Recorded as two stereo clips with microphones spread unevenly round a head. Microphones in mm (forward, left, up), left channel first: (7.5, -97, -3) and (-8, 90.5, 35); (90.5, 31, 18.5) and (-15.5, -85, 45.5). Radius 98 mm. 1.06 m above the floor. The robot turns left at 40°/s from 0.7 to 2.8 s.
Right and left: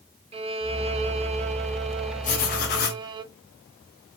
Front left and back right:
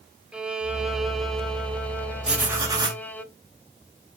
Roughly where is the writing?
Ahead right.